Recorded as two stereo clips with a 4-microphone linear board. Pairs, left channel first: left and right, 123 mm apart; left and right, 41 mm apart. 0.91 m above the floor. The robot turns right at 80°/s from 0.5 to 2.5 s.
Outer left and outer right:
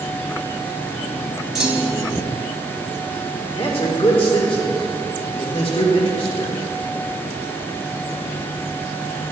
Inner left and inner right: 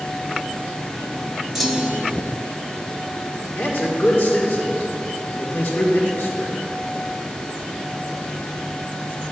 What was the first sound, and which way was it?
A clunk, 175° right.